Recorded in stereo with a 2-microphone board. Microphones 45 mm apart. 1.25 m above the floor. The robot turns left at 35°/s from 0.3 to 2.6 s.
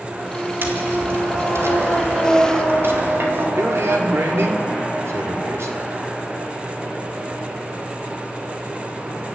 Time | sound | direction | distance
0.6 | tapping | 50° right | 3.5 m
3.6 | a man speaking | 80° right | 3.5 m